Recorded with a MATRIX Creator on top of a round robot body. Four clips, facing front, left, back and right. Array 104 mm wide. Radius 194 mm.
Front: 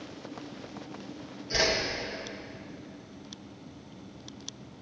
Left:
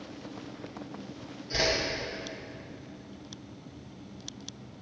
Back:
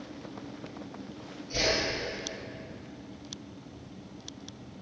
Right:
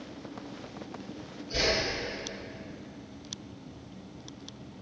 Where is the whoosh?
30° left, 2.5 m.